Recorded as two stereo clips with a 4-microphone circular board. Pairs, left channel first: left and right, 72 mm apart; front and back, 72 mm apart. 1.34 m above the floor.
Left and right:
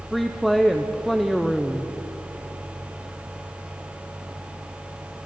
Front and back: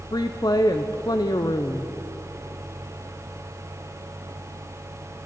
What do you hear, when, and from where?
0.1 s a woman speaking: straight ahead, 0.6 m